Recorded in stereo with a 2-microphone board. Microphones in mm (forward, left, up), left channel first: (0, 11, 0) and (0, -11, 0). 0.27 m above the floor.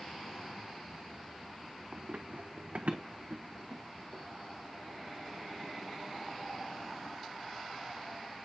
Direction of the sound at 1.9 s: 70° right (ahead or behind).